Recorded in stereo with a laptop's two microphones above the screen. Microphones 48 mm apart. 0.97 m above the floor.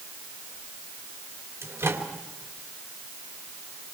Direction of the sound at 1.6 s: 65° right (ahead or behind).